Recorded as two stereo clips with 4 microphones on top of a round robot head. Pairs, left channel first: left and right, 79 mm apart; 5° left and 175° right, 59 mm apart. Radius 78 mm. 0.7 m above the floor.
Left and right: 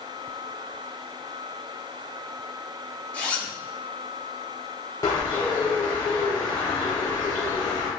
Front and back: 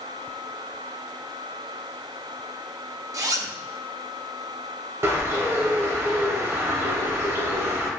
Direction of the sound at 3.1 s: 160° left.